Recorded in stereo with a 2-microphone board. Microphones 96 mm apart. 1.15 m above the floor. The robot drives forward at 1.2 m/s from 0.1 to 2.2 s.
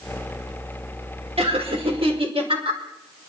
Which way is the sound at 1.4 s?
80° right.